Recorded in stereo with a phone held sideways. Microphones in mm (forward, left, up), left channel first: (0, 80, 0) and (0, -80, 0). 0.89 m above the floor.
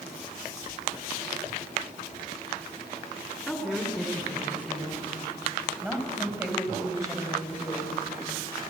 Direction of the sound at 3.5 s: Centre (ahead or behind).